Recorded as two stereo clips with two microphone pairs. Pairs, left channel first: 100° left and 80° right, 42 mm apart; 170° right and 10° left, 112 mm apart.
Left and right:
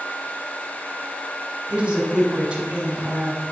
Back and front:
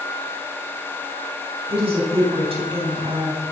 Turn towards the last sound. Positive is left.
turn(degrees=-20)